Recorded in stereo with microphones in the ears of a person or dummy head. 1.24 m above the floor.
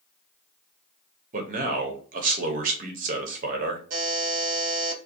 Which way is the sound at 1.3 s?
40° right (ahead or behind).